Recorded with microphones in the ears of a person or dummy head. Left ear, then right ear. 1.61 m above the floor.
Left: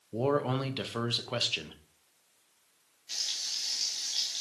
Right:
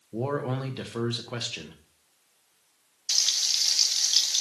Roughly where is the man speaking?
Centre.